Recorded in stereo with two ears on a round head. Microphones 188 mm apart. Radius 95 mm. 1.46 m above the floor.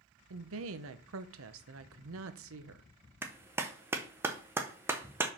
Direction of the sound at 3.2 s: 10° right (ahead or behind).